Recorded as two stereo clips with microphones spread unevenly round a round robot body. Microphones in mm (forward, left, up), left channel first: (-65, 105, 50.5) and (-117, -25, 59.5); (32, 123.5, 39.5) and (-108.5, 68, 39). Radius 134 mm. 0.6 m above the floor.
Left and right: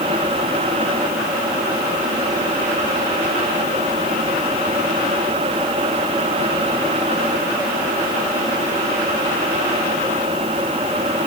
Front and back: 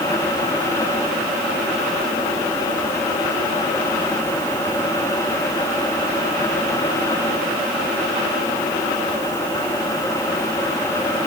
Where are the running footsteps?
No running footsteps in this recording.